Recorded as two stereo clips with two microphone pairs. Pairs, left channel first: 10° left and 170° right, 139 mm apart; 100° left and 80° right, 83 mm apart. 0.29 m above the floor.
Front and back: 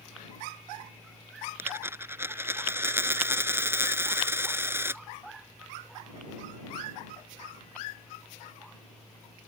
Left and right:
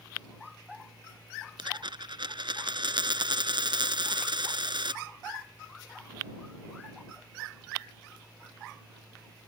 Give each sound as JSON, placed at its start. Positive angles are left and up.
{"t": 1.6, "sound": "a dropped coin", "azimuth_deg": -95}